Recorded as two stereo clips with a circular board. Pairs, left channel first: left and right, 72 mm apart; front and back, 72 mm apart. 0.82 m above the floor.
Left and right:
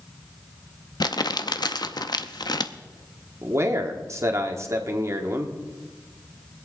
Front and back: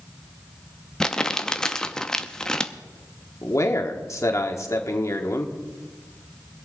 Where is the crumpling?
80° left, 0.7 m.